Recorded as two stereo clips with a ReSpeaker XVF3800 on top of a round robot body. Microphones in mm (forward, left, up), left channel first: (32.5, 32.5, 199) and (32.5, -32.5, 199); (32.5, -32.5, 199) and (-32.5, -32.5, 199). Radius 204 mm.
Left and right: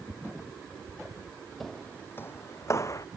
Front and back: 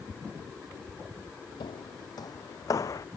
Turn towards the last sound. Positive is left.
turn(degrees=45)